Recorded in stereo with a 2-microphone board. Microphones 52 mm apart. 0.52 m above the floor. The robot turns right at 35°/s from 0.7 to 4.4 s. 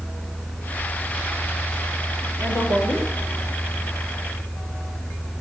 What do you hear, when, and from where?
2.4 s a woman speaking: 45° left (ahead or behind), 8 m; by 3.1 s 70° left (ahead or behind), 8 m